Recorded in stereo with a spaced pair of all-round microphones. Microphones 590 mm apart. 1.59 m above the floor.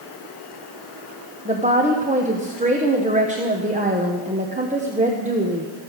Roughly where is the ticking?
No ticking in this recording.